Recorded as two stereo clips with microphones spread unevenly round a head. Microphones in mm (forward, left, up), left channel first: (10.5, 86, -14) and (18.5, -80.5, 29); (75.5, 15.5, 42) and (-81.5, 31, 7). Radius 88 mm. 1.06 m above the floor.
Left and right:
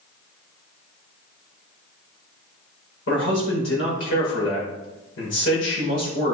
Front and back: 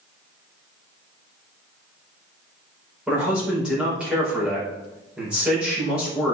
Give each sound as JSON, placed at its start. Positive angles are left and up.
{"t": 3.1, "sound": "a man speaking", "azimuth_deg": 90, "distance_m": 5.0}